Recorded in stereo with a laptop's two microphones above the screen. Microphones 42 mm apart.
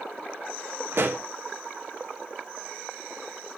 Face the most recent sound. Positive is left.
turn(degrees=-60)  # may be behind; listen again after turning